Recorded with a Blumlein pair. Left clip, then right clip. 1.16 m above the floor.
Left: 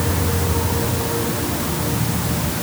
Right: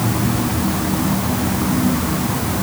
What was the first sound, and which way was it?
Only background noise.